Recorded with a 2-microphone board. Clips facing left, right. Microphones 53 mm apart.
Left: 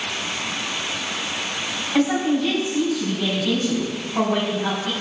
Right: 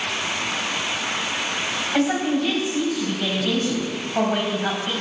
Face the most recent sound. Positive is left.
turn(degrees=-20)  # may be behind; listen again after turning